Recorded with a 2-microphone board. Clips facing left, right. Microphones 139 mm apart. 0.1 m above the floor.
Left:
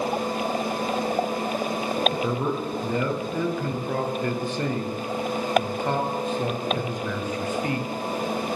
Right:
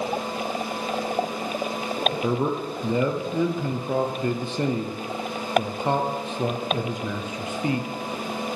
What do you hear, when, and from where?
2.2 s a man speaking: 20° right (ahead or behind), 1.6 m